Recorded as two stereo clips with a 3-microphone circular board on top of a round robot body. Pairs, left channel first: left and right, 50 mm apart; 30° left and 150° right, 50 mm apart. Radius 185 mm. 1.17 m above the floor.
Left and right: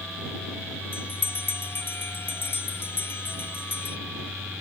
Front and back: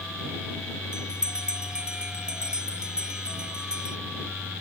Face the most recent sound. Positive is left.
turn(degrees=135)